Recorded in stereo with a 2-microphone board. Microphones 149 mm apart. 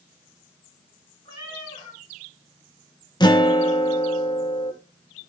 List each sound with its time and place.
1.2 s a cat meowing: 35° left (ahead or behind), 4.5 m
3.2 s a guitar: 30° left (ahead or behind), 1.1 m